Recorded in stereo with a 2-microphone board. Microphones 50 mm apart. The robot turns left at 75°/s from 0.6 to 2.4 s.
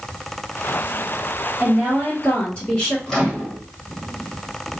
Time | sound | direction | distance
1.6 | a woman speaking | 165° right | 1.5 m
3.1 | a microwave | 10° left (ahead or behind) | 1.6 m